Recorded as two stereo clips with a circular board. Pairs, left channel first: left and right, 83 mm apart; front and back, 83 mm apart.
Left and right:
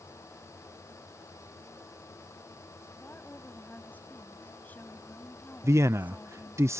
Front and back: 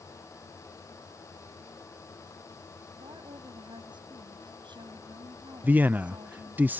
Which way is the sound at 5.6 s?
120° right.